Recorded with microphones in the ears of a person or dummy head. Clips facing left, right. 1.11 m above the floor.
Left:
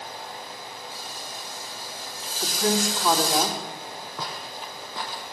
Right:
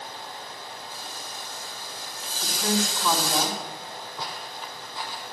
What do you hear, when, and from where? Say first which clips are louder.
0.9 s frying: left 1 dB; 45° right (ahead or behind), 8 m
2.4 s a woman speaking: left 2 dB; 40° left (ahead or behind), 3 m
4.2 s footsteps: left 2 dB; 65° left (ahead or behind), 2.5 m; by 5.2 s 50° left (ahead or behind), 2 m